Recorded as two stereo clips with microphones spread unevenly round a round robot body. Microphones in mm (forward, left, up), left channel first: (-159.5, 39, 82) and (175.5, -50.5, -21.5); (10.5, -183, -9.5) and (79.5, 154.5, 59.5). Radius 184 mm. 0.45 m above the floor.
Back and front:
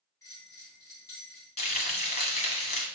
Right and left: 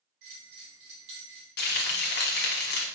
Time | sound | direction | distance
0.2 | a bell | 75° left | 2 m
1.6 | frying | 110° right | 1.0 m